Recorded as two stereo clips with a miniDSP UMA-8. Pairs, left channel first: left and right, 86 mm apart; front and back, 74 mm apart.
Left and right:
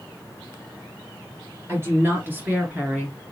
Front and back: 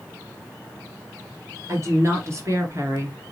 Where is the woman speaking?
140° right, 3 m; by 3.3 s 165° right, 1.8 m.